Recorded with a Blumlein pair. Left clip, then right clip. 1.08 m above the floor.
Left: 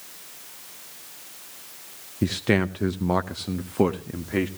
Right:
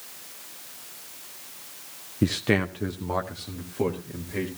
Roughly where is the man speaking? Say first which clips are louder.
Left 1 dB; ahead.